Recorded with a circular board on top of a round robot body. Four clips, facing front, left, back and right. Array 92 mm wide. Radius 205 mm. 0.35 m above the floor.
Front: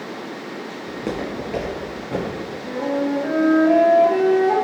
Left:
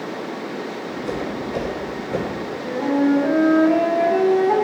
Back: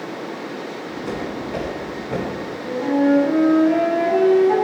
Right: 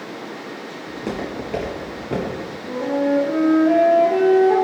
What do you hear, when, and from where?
0.9 s footsteps: 25° right, 0.7 m; by 2.3 s 115° right, 0.8 m
2.6 s a flute: 70° left, 1.9 m